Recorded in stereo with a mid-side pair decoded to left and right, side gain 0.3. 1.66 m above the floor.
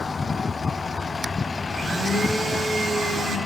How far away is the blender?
About 1.4 m.